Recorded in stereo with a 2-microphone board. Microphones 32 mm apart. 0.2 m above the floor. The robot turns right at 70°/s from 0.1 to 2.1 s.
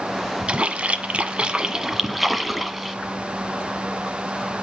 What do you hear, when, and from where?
0.5 s a splash: 125° right, 0.9 m; by 3.0 s 10° right, 0.9 m